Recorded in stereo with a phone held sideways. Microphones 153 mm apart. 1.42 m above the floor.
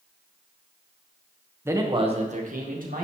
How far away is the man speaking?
About 1.4 m.